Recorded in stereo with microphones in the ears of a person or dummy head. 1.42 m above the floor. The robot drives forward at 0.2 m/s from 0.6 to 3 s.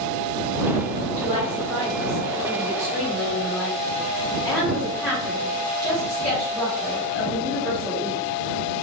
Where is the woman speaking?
10° left (ahead or behind), 1.7 m.